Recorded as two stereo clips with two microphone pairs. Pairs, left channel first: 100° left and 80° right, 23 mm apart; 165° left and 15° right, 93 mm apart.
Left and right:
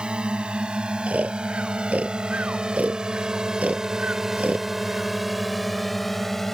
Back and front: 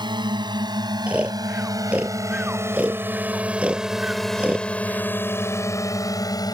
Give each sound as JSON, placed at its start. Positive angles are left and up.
{"t": 0.0, "sound": "a drone", "azimuth_deg": -40}
{"t": 1.1, "sound": "snoring", "azimuth_deg": -90}